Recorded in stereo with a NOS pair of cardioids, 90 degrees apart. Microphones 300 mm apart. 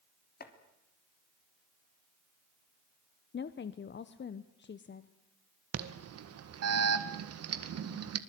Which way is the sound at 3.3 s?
40° left.